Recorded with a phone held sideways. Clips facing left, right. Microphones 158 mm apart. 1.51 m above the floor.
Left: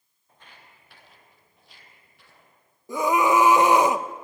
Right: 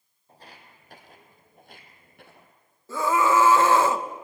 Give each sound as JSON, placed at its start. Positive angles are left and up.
{"t": 0.3, "sound": "footsteps", "side_deg": -35, "distance_m": 3.5}
{"t": 2.9, "sound": "a scream", "side_deg": 15, "distance_m": 1.0}